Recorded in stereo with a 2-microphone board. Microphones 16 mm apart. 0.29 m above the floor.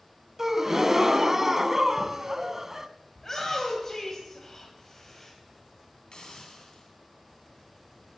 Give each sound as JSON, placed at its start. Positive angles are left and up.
{"t": 0.4, "sound": "a gasp", "side_deg": -25, "distance_m": 0.6}
{"t": 3.1, "sound": "a shout", "side_deg": 25, "distance_m": 1.8}
{"t": 6.1, "sound": "a hiss", "side_deg": 60, "distance_m": 3.0}